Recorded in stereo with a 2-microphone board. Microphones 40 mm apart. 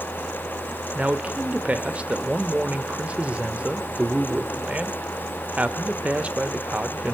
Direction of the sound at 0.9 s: 35° right (ahead or behind).